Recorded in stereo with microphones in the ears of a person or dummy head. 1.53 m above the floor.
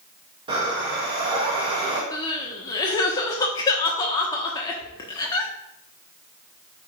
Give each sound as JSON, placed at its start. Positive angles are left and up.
{"t": 0.5, "sound": "breathing", "side_deg": -25, "distance_m": 2.5}
{"t": 2.1, "sound": "crying", "side_deg": 25, "distance_m": 1.2}